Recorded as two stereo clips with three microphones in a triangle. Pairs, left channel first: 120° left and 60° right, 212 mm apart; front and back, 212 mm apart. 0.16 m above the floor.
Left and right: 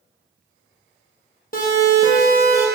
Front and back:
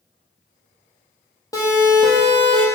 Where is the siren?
75° left, 4.5 m; by 2.7 s 65° left, 4.5 m.